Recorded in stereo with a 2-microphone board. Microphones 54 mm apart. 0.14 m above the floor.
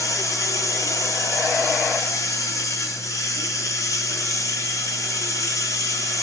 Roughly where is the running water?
Left.